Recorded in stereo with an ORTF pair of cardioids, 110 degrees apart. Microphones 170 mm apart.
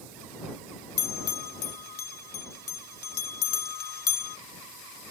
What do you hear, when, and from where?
1.0 s a bell: 70° left